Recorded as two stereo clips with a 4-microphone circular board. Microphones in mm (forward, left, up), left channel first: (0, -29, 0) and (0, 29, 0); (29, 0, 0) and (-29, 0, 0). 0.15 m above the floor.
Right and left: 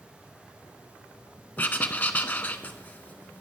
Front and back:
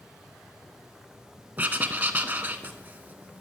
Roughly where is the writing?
Behind right.